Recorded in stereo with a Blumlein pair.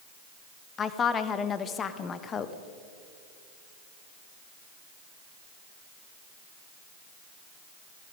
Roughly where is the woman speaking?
Ahead.